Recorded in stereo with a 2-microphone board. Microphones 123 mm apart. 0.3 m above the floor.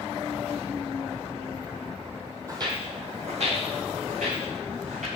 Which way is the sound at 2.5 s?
30° right (ahead or behind).